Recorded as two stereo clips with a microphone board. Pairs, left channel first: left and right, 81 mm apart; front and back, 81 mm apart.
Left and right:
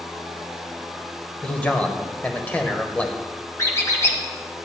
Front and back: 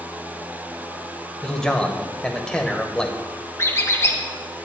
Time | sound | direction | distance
1.4 | a man speaking | 65° left | 0.9 m
3.6 | a squeak | 45° left | 1.3 m